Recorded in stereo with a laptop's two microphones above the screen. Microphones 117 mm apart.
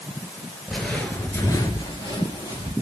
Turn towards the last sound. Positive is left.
turn(degrees=35)  # may be behind; listen again after turning